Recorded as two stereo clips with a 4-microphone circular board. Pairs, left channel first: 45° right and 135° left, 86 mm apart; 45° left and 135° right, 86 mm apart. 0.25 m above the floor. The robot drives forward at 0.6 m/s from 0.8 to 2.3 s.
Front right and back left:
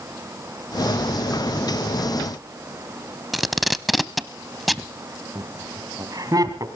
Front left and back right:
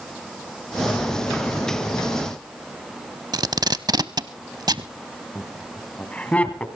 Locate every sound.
3.3 s tape being pulled: 135° right, 0.7 m
5.3 s laughter: 115° left, 2 m